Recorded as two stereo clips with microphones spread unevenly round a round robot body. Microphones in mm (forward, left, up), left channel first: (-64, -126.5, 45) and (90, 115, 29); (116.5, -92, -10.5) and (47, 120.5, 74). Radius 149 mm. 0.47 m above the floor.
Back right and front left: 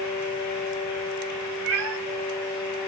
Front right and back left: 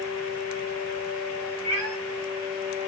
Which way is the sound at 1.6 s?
100° left.